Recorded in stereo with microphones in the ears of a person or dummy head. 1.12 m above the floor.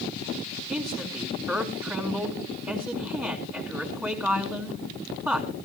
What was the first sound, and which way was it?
A man speaking, 15° right (ahead or behind).